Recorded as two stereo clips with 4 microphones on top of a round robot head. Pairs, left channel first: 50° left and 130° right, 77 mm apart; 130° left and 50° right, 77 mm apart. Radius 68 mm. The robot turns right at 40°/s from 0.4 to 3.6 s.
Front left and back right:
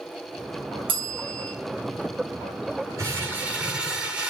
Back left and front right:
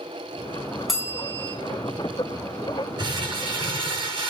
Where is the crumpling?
80° right, 7.5 m; by 4.3 s 55° right, 7.5 m.